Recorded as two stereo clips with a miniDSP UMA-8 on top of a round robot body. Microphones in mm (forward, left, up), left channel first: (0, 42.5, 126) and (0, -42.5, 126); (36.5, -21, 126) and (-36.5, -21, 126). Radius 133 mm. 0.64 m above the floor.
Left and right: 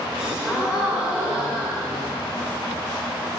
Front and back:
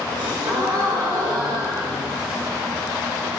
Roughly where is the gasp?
Behind.